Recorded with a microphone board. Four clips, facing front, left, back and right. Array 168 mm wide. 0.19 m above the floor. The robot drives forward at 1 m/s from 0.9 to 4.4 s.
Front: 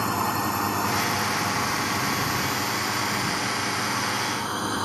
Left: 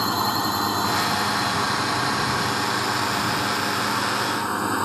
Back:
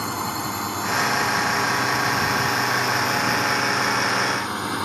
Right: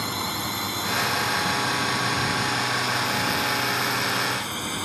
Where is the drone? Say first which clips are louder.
Left 7 dB, front 2 dB; 75° left; by 4.9 s 105° left.